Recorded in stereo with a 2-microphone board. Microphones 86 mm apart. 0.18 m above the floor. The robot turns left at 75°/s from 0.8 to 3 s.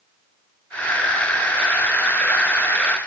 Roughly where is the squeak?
No squeak in this recording.